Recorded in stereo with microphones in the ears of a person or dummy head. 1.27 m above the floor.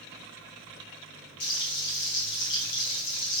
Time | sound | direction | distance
1.4 | frying | 55° left (ahead or behind) | 1.7 m